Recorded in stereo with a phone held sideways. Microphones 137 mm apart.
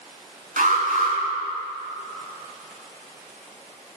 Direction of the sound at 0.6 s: 80° right.